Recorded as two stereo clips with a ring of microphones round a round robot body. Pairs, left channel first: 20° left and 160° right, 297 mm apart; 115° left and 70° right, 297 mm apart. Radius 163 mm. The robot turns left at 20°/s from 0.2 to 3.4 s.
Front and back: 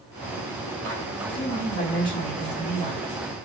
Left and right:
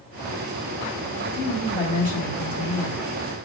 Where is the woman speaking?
20° right, 1.5 m; by 3.0 s 55° right, 1.5 m.